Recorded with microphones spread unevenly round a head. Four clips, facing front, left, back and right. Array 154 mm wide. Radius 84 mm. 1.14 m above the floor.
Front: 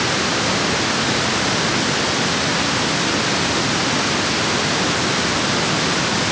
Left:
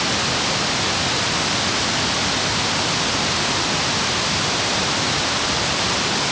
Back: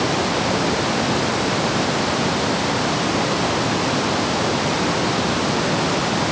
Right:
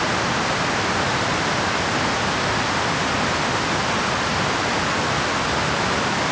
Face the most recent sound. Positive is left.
No sound to turn to.